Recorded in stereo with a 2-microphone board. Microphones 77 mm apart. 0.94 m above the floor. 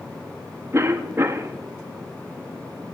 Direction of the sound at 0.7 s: 35° right (ahead or behind).